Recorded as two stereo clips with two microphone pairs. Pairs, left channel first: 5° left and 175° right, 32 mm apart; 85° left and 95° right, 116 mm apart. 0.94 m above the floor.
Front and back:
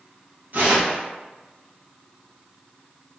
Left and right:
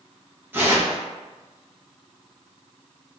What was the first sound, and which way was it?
Tearing paper, 165° right.